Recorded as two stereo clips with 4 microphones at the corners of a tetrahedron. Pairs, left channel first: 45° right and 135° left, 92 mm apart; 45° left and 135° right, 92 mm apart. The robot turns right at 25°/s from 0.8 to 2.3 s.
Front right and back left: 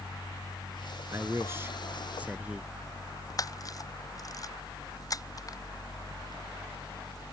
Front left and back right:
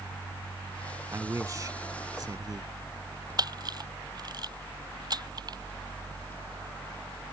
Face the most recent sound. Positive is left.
turn(degrees=-95)